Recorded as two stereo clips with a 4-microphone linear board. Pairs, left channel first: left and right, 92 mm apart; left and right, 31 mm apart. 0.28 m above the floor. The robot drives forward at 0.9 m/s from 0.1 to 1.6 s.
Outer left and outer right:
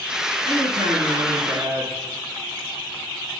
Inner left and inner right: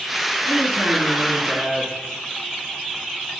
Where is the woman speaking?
65° right (ahead or behind), 4.5 m; by 2.0 s 55° right (ahead or behind), 5 m.